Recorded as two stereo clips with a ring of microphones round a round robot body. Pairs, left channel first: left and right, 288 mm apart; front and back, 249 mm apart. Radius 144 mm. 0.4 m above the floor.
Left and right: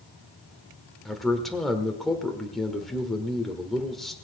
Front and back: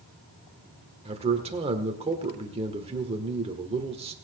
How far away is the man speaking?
About 1.4 m.